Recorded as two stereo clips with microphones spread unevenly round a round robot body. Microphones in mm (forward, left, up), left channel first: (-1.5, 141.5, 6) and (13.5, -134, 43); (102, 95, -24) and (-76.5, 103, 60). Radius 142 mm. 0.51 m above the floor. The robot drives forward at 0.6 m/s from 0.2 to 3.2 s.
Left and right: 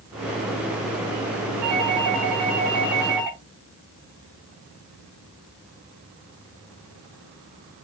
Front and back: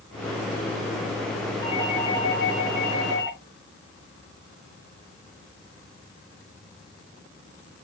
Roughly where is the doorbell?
Right.